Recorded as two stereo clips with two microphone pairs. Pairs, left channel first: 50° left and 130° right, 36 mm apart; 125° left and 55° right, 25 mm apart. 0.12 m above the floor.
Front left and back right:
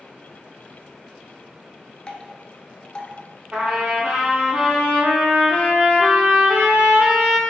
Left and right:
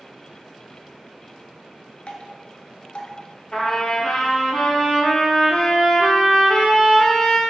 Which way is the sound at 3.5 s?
175° right.